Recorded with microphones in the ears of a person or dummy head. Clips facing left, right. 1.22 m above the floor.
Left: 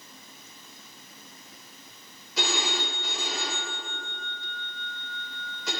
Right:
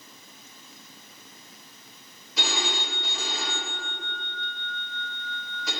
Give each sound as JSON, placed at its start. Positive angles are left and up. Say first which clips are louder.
{"t": 2.4, "sound": "a phone ringing", "louder": "left 1 dB", "side_deg": 60, "distance_m": 3.5}